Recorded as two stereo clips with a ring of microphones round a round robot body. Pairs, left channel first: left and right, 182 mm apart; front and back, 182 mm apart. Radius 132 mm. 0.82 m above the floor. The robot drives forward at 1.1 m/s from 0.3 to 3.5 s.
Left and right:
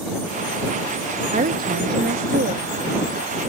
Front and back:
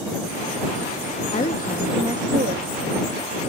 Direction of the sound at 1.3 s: 50° right.